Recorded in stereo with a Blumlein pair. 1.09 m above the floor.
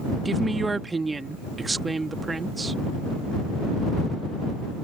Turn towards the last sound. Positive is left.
turn(degrees=-10)